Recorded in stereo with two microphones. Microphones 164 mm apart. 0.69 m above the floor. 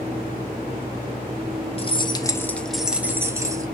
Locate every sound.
1.8 s keys jangling: 35° left (ahead or behind), 0.6 m; by 3.6 s 20° right (ahead or behind), 0.9 m